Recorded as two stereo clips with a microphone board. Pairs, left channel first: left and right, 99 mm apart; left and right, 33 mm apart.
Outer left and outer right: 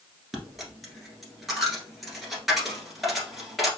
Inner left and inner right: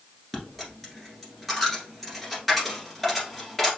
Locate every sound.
0.3 s a dropped coin: centre (ahead or behind), 1.5 m